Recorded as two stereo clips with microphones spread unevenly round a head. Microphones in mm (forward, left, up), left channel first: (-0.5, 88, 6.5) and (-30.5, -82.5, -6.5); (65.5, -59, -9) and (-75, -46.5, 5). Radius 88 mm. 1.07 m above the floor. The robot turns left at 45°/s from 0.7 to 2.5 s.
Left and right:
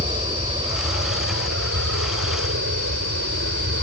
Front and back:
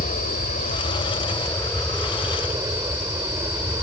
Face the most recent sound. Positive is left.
turn(degrees=-120)